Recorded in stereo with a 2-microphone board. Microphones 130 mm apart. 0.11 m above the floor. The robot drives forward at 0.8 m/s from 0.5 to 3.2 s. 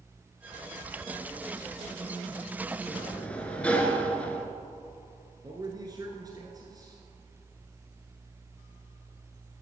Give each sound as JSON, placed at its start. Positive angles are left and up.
{"t": 2.9, "sound": "a sliding door", "side_deg": 10, "distance_m": 0.9}
{"t": 5.4, "sound": "a man speaking", "side_deg": -30, "distance_m": 1.2}